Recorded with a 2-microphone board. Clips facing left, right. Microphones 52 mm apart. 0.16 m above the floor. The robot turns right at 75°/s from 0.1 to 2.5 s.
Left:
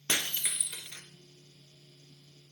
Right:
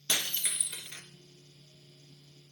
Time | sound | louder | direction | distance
0.1 | breaking glass | left 1 dB | 145° left | 0.8 m